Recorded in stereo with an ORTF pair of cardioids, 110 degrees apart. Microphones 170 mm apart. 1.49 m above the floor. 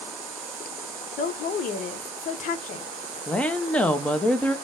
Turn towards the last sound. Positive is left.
turn(degrees=5)